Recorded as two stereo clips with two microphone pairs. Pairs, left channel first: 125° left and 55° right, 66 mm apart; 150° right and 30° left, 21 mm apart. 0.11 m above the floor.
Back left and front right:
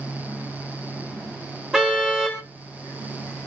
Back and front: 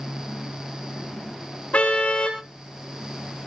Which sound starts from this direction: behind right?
A car horn, at 1.7 s.